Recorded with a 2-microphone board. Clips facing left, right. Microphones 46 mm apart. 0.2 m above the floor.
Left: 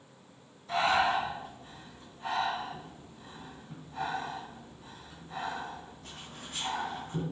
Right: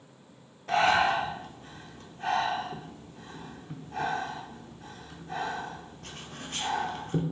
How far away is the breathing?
About 0.8 m.